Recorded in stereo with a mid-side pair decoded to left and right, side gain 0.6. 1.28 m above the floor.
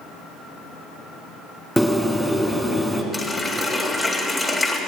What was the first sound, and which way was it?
A bird, straight ahead.